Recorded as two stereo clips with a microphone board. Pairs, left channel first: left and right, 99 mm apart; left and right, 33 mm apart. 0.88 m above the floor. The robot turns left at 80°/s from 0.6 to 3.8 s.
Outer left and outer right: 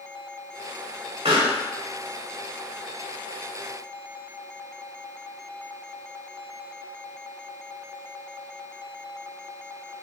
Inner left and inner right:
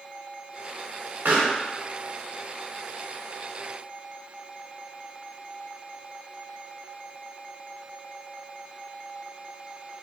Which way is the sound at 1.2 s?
75° right (ahead or behind).